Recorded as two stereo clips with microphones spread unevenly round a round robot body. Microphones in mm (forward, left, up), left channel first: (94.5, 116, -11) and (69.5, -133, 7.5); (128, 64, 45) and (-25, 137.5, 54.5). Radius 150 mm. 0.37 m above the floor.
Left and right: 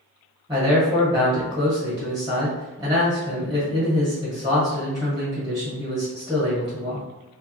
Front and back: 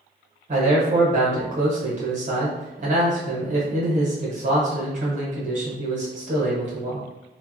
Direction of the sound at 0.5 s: 175° right.